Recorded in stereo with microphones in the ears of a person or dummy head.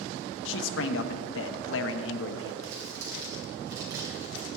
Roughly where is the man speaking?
Left.